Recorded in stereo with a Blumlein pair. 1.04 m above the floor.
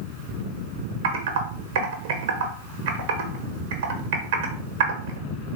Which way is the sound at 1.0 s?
55° right.